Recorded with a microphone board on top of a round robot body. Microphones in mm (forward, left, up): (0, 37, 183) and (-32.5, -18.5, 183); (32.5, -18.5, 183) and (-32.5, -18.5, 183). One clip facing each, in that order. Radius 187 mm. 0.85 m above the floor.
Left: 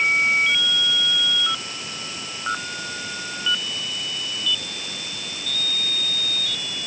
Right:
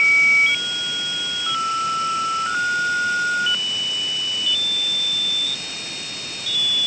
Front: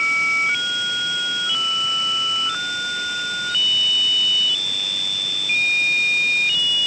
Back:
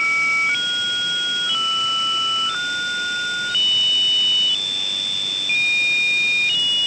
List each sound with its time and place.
Only background noise.